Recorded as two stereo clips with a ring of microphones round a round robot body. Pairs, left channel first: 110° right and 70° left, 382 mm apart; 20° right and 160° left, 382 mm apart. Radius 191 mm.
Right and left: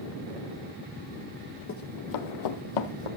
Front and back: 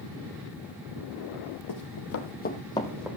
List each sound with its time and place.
1.7 s running footsteps: 55° right, 1.8 m; by 3.1 s 115° right, 2 m